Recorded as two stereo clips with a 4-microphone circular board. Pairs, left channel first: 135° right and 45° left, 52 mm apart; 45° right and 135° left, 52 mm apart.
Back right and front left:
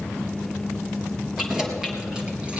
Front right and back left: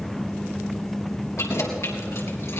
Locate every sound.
1.4 s keys jangling: 35° right, 3.5 m; by 2.6 s 20° right, 3.5 m